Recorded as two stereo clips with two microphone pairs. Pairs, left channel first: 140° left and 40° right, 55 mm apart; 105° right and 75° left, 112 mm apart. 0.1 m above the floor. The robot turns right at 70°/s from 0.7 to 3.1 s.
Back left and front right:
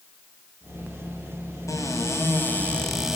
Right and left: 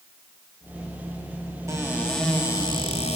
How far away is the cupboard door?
About 7 m.